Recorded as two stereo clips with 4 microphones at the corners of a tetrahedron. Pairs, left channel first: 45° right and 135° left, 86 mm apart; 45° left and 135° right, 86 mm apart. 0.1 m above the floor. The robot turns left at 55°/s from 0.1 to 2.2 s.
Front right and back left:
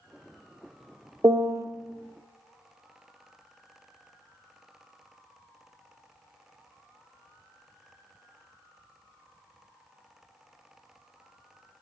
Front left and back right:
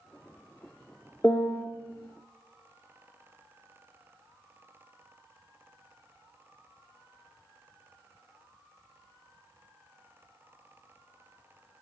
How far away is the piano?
About 0.6 m.